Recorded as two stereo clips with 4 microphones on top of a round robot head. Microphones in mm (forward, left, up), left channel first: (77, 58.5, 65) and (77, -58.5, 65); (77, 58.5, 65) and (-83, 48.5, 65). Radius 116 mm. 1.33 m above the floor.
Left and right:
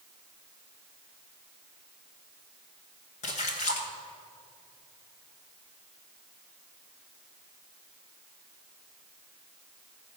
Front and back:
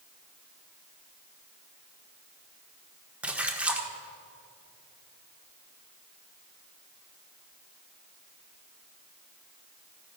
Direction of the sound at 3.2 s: 105° left.